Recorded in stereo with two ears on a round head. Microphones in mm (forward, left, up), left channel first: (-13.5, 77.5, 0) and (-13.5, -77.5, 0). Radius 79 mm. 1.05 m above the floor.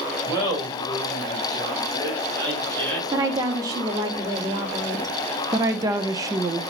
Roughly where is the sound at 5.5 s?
Centre.